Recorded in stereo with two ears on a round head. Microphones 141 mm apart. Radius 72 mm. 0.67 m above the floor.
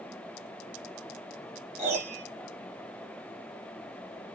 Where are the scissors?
I don't hear scissors.